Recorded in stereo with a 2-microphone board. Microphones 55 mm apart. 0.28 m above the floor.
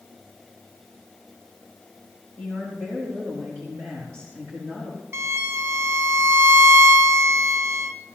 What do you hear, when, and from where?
2.4 s a woman speaking: 50° right (ahead or behind), 4.5 m
5.1 s a violin: 40° right (ahead or behind), 0.9 m